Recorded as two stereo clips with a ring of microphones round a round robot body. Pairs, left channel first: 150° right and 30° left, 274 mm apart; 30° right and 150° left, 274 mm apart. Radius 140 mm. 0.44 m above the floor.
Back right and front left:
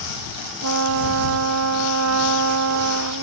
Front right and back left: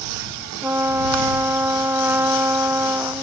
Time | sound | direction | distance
0.6 | a trumpet | 70° left | ?